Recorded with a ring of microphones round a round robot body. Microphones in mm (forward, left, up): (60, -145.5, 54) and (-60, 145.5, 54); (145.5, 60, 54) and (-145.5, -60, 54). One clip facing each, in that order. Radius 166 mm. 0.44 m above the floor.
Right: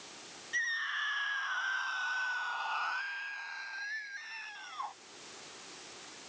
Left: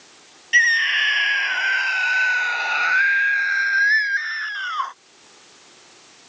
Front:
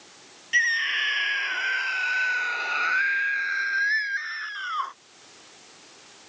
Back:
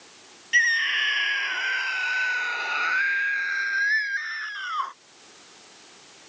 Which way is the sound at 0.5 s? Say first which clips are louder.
Left 16 dB, back 2 dB; 115° left.